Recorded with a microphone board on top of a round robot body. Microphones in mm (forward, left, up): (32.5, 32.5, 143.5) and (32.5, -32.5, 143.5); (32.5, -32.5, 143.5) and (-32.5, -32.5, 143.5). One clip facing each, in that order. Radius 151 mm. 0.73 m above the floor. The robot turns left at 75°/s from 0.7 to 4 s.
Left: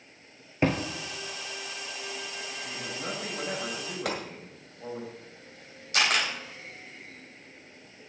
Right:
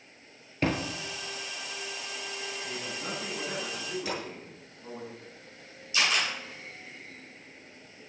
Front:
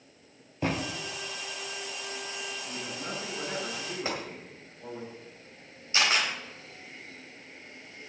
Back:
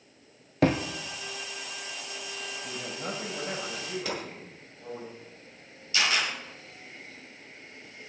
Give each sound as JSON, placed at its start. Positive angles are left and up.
{"t": 0.6, "sound": "a thud", "azimuth_deg": 165, "distance_m": 0.9}
{"t": 2.6, "sound": "a man speaking", "azimuth_deg": -170, "distance_m": 5.0}
{"t": 4.0, "sound": "a gunshot", "azimuth_deg": 60, "distance_m": 1.9}
{"t": 5.9, "sound": "a camera shutter", "azimuth_deg": 60, "distance_m": 4.0}